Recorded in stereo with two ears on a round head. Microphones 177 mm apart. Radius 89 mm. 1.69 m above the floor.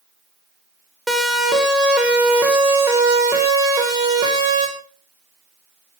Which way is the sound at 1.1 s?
Centre (ahead or behind).